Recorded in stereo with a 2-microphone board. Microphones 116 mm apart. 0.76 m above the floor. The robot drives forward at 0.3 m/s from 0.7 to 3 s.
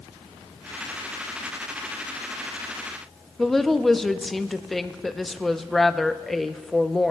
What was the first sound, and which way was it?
A woman speaking, centre (ahead or behind).